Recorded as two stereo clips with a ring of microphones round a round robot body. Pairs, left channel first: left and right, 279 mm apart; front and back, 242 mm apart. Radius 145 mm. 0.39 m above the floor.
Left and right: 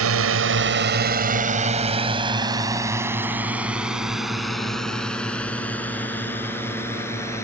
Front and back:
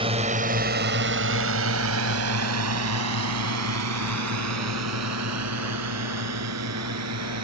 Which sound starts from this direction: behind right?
A drone, at 0.0 s.